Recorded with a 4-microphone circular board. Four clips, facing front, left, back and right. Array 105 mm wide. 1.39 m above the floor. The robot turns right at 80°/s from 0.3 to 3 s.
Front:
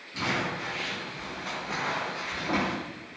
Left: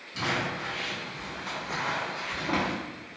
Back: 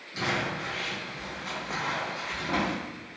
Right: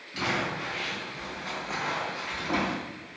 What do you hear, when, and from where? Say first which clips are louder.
0.1 s crumpling: right 1 dB, even; 100° right, 1.1 m; by 2.8 s 100° left, 1.1 m